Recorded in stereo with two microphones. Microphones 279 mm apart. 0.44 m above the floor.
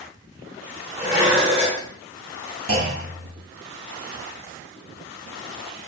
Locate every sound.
1.0 s dishes clattering: 20° right (ahead or behind), 0.9 m
2.7 s a clunk: 60° right (ahead or behind), 0.6 m